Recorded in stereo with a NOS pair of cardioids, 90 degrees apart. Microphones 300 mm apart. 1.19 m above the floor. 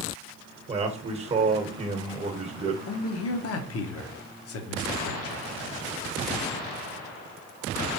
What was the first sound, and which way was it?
A man speaking, 20° right.